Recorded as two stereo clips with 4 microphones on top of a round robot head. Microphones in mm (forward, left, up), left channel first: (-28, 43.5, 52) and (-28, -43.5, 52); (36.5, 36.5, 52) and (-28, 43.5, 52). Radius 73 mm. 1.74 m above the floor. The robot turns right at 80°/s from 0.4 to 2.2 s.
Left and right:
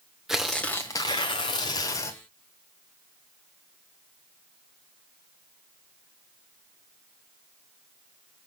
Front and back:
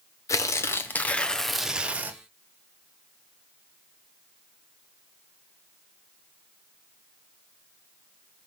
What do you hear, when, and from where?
0.3 s tearing paper: 5° right, 0.6 m; by 2.2 s 135° left, 0.6 m